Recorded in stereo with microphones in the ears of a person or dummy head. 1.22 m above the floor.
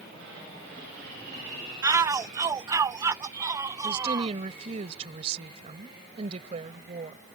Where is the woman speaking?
40° right (ahead or behind).